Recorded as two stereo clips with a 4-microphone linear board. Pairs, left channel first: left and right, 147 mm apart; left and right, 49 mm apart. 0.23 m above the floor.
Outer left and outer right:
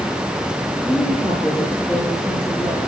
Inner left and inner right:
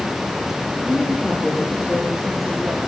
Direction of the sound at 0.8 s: 5° left (ahead or behind).